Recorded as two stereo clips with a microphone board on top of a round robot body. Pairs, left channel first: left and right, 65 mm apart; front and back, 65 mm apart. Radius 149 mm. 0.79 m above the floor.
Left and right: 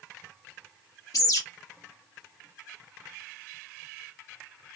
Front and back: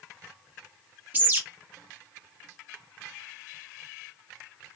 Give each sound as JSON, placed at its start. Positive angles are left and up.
{"t": 1.1, "sound": "a bird", "azimuth_deg": 120, "distance_m": 1.3}